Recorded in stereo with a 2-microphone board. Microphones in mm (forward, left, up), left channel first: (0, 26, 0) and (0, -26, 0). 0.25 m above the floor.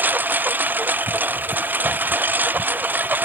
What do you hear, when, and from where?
0.0 s a lawn mower: 35° right (ahead or behind)